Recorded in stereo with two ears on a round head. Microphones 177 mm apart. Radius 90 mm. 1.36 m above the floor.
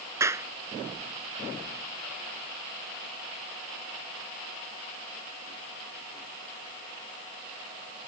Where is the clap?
15° right (ahead or behind).